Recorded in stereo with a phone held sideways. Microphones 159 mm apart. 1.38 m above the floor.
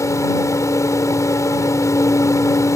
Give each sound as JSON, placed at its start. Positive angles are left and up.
{"t": 0.0, "sound": "a fan", "side_deg": 20}